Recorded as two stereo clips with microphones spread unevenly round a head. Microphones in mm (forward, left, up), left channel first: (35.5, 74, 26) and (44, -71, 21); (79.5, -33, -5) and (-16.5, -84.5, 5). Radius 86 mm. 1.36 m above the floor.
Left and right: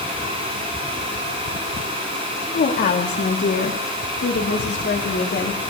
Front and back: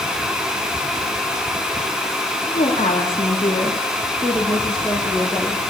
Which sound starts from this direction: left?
A woman speaking, at 2.5 s.